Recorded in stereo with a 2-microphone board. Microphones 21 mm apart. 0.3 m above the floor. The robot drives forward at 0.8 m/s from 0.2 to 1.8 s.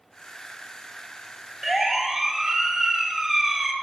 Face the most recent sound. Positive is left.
turn(degrees=-15)  # may be behind; listen again after turning